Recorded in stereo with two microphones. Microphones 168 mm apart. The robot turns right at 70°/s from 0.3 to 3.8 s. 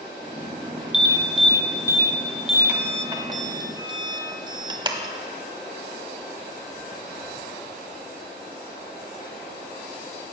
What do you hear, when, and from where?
0.9 s an alarm: 25° left (ahead or behind), 1.2 m; by 5.1 s 25° right (ahead or behind), 1.2 m